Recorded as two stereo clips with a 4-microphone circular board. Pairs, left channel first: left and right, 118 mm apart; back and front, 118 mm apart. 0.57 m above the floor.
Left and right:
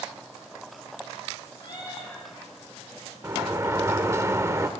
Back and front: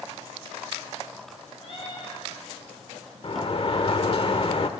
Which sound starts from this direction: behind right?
A sliding door, at 3.2 s.